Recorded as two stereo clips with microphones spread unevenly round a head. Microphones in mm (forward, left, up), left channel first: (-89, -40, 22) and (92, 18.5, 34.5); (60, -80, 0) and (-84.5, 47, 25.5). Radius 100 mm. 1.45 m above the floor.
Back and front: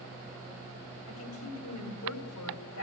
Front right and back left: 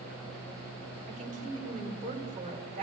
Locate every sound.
1.1 s a woman speaking: 170° right, 4.5 m